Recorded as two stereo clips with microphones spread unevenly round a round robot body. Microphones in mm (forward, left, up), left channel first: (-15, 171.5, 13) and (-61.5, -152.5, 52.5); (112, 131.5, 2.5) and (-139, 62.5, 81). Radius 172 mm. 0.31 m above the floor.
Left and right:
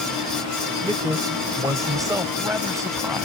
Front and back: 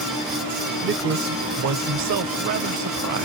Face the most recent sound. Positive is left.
turn(degrees=175)